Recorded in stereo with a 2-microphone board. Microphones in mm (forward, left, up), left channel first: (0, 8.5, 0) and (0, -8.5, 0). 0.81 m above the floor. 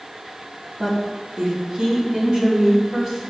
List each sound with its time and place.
0.8 s a woman speaking: 45° right (ahead or behind), 2 m; by 3.2 s 40° right (ahead or behind), 3 m